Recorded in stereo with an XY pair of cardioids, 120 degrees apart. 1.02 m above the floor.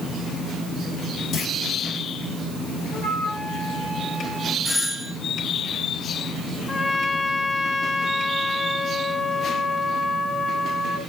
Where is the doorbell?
20° left, 4.5 m.